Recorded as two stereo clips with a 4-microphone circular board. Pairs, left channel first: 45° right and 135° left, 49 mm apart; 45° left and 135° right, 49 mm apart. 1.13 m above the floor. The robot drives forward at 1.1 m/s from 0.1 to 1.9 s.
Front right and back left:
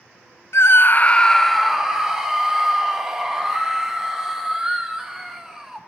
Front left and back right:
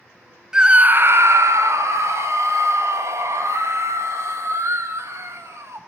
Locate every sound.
0.5 s a scream: 60° right, 0.9 m; by 5.8 s 145° right, 1.4 m